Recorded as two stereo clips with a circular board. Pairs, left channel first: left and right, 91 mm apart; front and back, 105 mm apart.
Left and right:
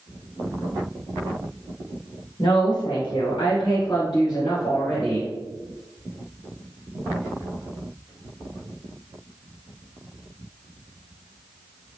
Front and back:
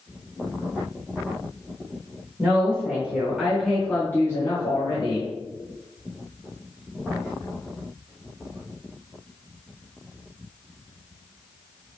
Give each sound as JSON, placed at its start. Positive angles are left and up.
{"t": 2.4, "sound": "a woman speaking", "azimuth_deg": 115, "distance_m": 1.5}